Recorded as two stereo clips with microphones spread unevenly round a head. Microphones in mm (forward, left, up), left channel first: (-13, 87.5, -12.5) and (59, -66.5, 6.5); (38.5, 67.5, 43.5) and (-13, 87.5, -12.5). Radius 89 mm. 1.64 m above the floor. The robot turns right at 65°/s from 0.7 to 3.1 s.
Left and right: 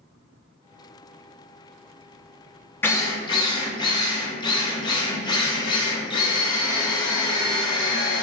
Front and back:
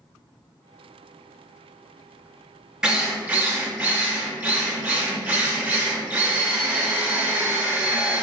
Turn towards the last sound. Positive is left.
turn(degrees=55)